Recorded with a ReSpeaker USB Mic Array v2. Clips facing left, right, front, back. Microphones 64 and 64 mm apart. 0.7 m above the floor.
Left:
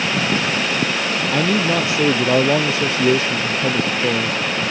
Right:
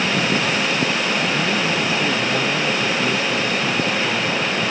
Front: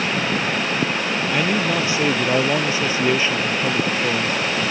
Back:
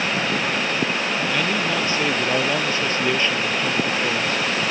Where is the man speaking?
75° left; by 4.4 s 80° left.